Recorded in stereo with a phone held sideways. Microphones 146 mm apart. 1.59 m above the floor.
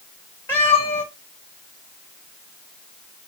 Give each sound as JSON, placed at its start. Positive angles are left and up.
{"t": 0.5, "sound": "a cat meowing", "side_deg": 15, "distance_m": 2.0}